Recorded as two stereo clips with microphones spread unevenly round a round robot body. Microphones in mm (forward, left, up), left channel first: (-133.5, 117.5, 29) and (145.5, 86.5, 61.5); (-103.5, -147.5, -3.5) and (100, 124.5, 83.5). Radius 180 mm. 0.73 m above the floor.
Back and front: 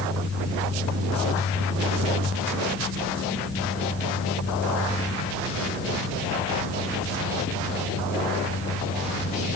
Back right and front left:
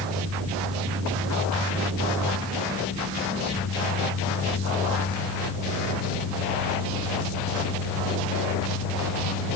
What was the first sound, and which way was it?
Only background noise.